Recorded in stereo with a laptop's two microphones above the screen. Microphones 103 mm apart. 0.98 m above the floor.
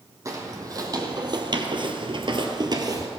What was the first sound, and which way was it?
Footsteps, 30° right (ahead or behind).